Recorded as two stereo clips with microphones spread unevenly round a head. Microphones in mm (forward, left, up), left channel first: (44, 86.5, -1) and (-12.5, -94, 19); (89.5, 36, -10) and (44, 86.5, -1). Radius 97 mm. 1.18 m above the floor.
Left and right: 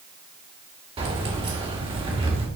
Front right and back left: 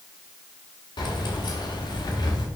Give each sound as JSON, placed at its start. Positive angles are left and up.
{"t": 1.0, "sound": "keys jangling", "azimuth_deg": -45, "distance_m": 1.8}